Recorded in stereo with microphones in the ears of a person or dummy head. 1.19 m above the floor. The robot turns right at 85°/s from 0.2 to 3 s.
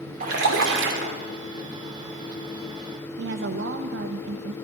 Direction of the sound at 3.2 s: 55° right (ahead or behind).